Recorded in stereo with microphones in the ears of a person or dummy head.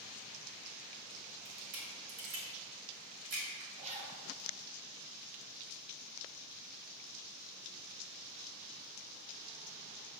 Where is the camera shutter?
75° right (ahead or behind), 2.5 m.